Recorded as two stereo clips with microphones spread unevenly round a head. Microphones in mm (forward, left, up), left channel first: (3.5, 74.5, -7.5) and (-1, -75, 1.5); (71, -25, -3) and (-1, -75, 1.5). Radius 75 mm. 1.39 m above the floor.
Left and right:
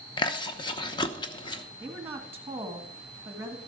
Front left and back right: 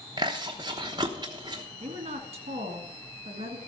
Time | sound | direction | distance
0.2 | chewing | 150° left | 0.9 m
1.8 | a woman speaking | 170° right | 1.7 m